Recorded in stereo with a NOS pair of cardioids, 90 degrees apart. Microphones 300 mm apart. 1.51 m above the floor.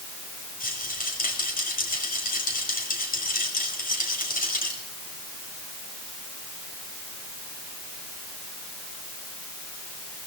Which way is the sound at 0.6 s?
25° left.